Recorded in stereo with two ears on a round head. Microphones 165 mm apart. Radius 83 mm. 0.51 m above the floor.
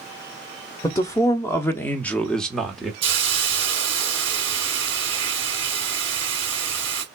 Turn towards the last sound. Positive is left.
turn(degrees=-30)  # may be behind; listen again after turning